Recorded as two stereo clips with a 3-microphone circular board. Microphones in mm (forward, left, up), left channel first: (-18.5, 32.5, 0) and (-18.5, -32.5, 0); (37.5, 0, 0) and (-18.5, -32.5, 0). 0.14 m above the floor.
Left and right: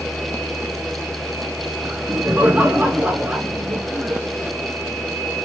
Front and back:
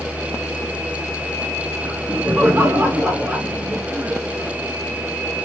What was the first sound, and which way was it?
Laughter, 125° right.